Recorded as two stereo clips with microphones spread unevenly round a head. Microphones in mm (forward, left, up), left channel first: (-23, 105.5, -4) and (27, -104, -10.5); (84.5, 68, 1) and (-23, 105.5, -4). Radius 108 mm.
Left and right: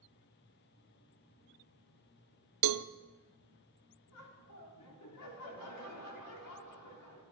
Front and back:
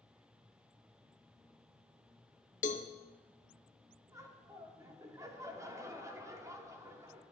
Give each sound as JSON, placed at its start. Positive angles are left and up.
{"t": 2.6, "sound": "a cowbell", "azimuth_deg": -65, "distance_m": 0.5}
{"t": 4.1, "sound": "laughter", "azimuth_deg": 100, "distance_m": 3.0}